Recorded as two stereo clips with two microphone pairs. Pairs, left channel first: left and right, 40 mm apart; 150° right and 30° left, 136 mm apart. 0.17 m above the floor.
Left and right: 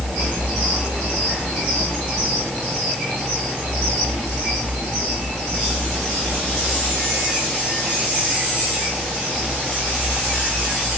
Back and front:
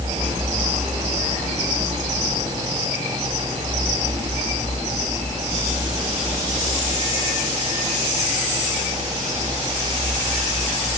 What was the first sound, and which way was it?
Only background noise.